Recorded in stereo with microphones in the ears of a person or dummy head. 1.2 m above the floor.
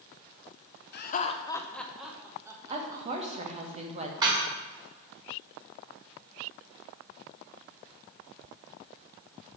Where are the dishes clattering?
20° right (ahead or behind), 1.9 m.